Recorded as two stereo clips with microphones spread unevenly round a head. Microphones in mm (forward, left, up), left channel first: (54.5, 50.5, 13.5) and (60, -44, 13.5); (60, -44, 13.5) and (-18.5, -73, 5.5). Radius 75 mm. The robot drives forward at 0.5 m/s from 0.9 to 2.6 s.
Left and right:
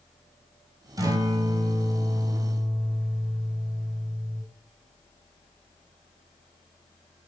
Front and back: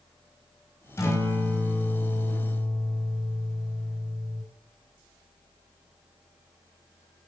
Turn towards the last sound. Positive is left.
turn(degrees=-40)